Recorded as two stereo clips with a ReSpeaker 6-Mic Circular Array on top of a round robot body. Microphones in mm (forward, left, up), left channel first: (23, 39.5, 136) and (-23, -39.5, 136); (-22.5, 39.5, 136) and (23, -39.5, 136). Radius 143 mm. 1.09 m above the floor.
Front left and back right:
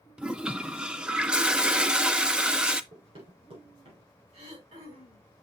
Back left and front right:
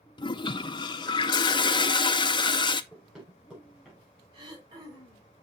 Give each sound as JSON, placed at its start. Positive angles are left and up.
{"t": 0.2, "sound": "a toilet flushing", "azimuth_deg": 160, "distance_m": 0.6}
{"t": 2.9, "sound": "running footsteps", "azimuth_deg": -140, "distance_m": 5.0}
{"t": 4.3, "sound": "throat clearing", "azimuth_deg": -105, "distance_m": 3.5}